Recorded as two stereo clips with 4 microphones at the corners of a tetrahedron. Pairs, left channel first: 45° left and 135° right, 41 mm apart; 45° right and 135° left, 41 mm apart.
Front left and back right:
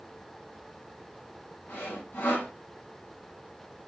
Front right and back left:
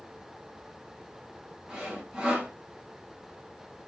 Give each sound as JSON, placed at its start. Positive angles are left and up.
{"t": 1.7, "sound": "sawing", "azimuth_deg": 60, "distance_m": 6.5}